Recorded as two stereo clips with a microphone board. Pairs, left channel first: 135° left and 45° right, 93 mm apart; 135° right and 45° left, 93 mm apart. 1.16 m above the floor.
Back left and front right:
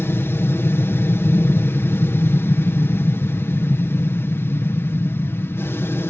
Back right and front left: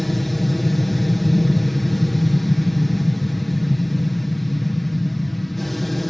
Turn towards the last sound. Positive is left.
turn(degrees=135)